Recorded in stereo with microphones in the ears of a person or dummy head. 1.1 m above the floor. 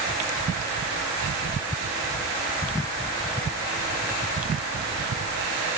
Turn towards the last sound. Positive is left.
No sound to turn to.